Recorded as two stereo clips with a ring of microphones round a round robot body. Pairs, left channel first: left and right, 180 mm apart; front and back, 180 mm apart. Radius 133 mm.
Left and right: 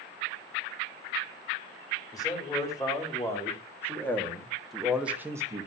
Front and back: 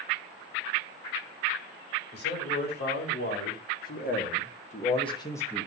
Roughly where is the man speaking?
Ahead.